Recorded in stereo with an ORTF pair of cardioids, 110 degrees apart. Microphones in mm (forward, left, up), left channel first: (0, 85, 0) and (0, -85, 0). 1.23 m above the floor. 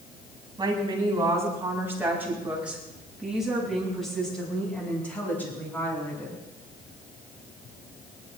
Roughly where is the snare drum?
No snare drum in this recording.